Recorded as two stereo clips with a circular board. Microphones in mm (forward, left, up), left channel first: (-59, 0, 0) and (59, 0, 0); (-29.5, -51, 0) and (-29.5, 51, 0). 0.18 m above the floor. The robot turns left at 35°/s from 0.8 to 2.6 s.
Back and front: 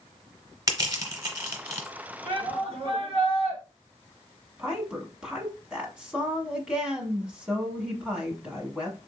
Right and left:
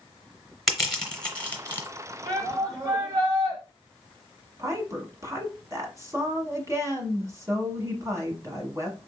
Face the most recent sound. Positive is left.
turn(degrees=75)